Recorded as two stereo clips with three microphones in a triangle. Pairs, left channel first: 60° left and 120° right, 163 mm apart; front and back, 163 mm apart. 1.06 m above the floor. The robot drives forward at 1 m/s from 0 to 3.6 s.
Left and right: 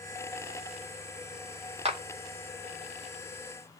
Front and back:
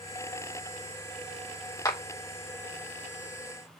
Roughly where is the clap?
Ahead right.